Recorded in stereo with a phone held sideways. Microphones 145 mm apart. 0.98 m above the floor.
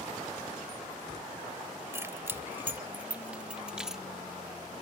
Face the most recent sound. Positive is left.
turn(degrees=0)  # may be behind; listen again after turning